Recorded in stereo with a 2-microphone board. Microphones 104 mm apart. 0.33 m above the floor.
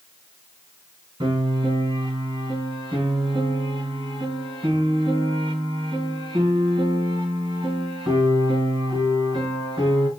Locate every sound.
1.2 s a piano: 55° right (ahead or behind), 3 m